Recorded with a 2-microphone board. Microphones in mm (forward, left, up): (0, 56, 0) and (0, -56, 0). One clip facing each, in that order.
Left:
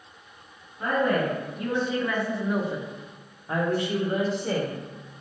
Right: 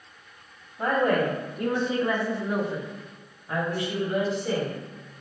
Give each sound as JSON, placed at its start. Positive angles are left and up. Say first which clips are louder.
{"t": 0.8, "sound": "a woman speaking", "louder": "right 1 dB", "side_deg": -65, "distance_m": 1.1}